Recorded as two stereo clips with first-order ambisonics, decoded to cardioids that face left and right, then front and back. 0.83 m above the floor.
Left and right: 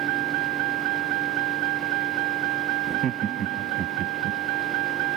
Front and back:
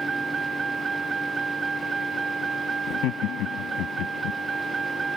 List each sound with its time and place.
0.0 s a vehicle: 105° right
2.9 s laughter: 35° right